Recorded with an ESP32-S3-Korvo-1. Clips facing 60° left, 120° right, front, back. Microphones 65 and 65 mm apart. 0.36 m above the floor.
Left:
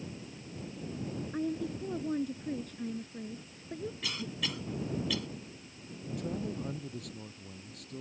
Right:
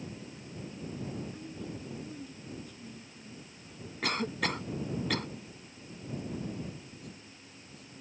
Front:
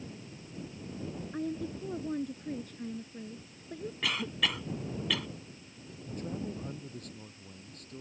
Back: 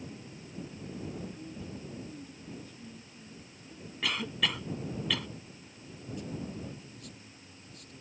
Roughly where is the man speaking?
Ahead left.